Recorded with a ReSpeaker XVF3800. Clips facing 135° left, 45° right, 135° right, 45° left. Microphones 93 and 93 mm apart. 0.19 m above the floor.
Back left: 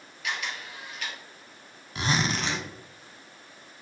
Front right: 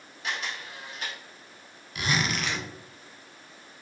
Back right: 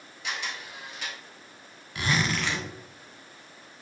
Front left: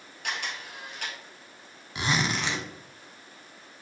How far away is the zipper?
About 0.7 m.